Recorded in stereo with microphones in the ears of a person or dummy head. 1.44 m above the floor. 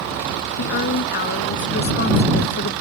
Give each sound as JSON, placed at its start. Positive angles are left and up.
{"t": 0.6, "sound": "a woman speaking", "side_deg": 55}